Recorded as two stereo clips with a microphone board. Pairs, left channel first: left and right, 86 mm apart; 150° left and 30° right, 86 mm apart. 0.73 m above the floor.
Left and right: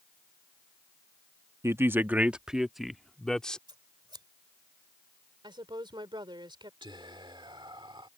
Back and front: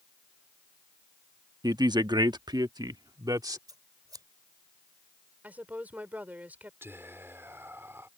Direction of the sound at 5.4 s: 100° right.